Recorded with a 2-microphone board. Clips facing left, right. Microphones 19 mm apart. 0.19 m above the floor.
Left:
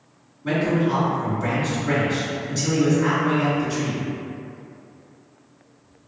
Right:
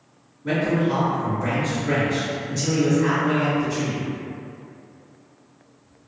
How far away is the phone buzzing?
I don't hear a phone buzzing.